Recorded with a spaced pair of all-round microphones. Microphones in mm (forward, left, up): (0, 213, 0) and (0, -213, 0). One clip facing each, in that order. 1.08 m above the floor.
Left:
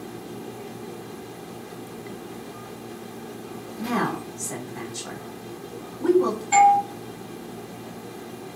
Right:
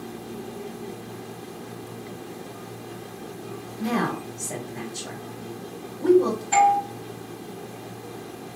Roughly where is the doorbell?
Centre.